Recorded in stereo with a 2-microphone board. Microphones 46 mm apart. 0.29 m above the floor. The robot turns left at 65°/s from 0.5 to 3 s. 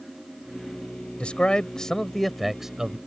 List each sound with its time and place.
1.2 s a man speaking: 25° left (ahead or behind); by 3.0 s 15° right (ahead or behind)